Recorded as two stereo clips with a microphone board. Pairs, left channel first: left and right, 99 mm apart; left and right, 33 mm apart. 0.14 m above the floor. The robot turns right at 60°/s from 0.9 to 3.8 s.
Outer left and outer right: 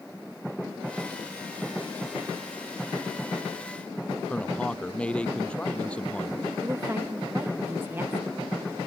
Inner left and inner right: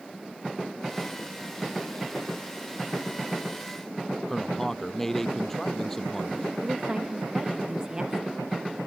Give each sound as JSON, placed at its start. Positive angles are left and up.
{"t": 4.3, "sound": "a man speaking", "side_deg": 10}
{"t": 6.6, "sound": "a woman speaking", "side_deg": -20}